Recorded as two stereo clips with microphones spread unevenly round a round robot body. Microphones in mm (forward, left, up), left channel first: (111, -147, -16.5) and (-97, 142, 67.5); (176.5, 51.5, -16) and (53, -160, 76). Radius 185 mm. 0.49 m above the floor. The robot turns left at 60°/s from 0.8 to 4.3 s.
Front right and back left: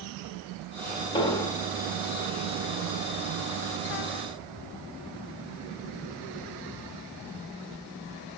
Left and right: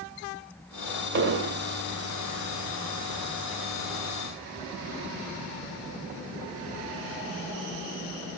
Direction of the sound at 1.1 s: 85° right.